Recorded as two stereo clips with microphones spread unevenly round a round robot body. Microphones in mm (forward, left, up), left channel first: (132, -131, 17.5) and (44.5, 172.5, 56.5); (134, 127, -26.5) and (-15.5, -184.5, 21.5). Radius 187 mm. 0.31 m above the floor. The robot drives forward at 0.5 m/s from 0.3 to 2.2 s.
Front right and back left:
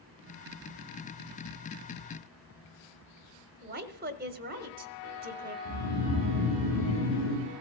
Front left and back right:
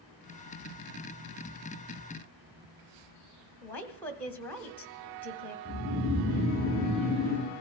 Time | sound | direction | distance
3.6 | a woman speaking | 115° left | 0.9 m
5.7 | snoring | 145° left | 7 m